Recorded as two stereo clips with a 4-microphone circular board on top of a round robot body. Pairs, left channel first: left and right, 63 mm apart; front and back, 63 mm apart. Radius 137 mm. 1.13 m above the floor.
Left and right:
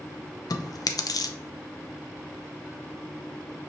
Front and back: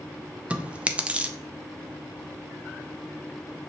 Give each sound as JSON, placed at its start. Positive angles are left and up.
{"t": 0.5, "sound": "chewing", "azimuth_deg": 110, "distance_m": 0.5}